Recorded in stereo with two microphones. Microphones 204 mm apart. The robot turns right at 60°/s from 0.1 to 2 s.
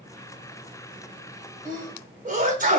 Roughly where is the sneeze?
Right.